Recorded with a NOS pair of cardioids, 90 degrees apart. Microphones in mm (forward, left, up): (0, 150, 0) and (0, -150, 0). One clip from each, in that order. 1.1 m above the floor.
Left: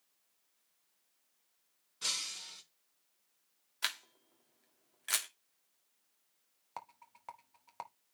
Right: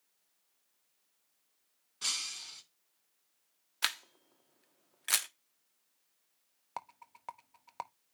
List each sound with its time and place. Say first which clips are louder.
2.0 s breaking glass: right 1 dB; 15° right, 3 m
3.8 s a camera shutter: right 3 dB; 25° right, 1.3 m
6.8 s a rattle: right 4 dB; 20° right, 0.9 m